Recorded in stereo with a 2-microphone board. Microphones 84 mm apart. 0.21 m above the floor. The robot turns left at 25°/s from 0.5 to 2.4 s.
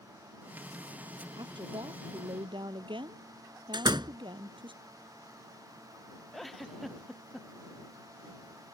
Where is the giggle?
Centre (ahead or behind).